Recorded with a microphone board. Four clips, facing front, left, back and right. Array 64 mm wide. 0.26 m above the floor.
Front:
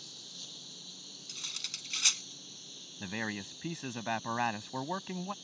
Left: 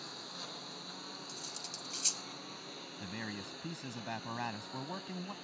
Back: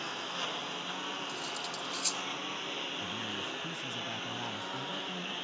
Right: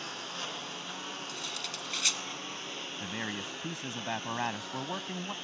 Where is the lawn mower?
155° right; by 5.4 s 160° right.